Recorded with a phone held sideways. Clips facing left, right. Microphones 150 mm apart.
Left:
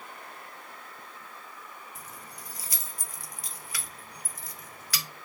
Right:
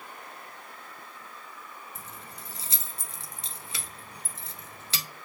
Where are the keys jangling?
25° right (ahead or behind), 0.8 m.